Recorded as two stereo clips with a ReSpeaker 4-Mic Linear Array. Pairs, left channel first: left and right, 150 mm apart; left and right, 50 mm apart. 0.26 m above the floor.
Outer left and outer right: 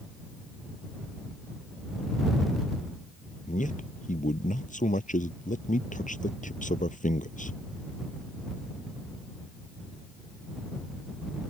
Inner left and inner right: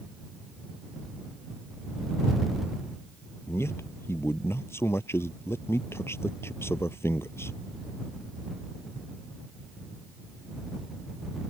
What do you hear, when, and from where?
3.5 s a man speaking: 55° left (ahead or behind)